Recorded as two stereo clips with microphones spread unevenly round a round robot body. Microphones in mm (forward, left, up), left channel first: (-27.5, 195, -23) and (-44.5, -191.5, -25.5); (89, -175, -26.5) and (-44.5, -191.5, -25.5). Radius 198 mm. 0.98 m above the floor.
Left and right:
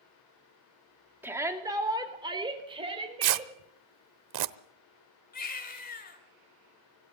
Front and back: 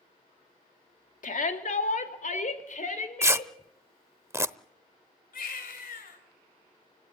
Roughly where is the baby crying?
Ahead.